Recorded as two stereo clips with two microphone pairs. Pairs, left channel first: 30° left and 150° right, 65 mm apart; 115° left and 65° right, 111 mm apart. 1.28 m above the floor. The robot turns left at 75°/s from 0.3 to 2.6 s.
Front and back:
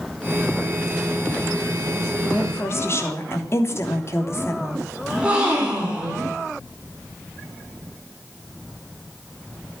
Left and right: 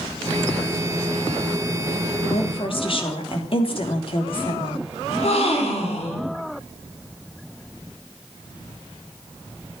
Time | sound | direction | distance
2.2 | a woman speaking | 110° left | 3 m
5.1 | a gasp | 140° left | 5 m